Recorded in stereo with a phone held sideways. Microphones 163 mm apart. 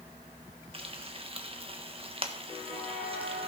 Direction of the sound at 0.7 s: 35° right (ahead or behind).